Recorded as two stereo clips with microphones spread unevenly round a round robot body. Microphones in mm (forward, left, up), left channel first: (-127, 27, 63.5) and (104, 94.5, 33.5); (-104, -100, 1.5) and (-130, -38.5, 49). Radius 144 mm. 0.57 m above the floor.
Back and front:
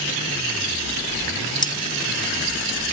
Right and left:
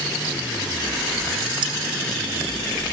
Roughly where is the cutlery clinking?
Behind left.